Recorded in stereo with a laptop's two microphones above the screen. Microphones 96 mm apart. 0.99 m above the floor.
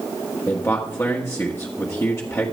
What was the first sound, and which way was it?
A man speaking, 30° left (ahead or behind).